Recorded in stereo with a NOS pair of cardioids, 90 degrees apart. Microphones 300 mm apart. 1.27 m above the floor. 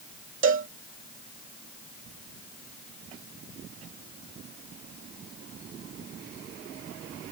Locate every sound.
0.4 s a cowbell: 40° right